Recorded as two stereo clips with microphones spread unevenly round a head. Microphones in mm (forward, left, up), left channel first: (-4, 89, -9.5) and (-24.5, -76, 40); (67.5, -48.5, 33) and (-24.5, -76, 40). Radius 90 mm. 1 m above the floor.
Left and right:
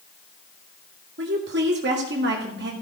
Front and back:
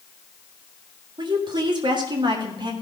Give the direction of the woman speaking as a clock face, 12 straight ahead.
4 o'clock.